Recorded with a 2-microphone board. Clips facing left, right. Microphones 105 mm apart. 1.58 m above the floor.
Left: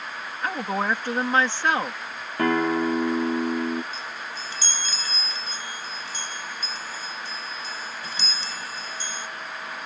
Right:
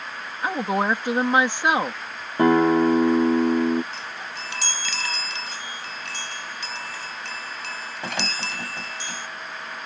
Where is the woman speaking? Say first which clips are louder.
Right 3 dB; 15° right (ahead or behind).